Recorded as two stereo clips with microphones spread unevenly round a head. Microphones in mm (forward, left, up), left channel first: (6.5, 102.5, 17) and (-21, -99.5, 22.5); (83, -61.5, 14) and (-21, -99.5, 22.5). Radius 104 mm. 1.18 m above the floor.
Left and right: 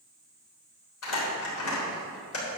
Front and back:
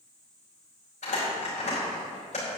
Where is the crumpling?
65° left, 3.5 m.